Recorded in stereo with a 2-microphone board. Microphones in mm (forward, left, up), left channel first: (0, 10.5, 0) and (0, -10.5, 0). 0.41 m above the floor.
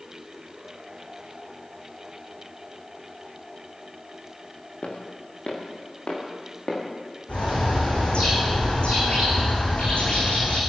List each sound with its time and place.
4.8 s footsteps: 55° left (ahead or behind), 4.5 m; by 6.8 s 50° left (ahead or behind), 6 m
7.3 s a bird: 65° left (ahead or behind), 5 m